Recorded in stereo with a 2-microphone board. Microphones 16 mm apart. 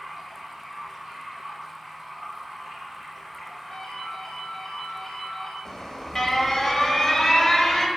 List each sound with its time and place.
0.0 s running water: 20° right (ahead or behind), 2.5 m
3.7 s a ringtone: 15° left (ahead or behind), 1.5 m
5.7 s an alarm: 25° left (ahead or behind), 1.0 m